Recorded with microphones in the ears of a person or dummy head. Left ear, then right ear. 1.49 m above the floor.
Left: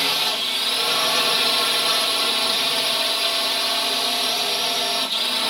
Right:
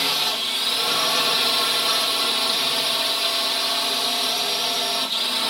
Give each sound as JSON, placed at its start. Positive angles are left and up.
{"t": 0.0, "sound": "a drone", "side_deg": 10}